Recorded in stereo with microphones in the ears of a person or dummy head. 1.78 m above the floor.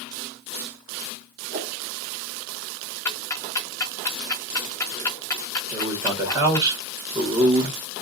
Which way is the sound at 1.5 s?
45° right (ahead or behind).